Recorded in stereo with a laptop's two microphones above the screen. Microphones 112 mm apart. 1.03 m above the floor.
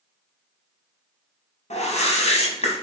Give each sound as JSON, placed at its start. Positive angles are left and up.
{"t": 1.7, "sound": "a whoosh", "side_deg": 85, "distance_m": 0.7}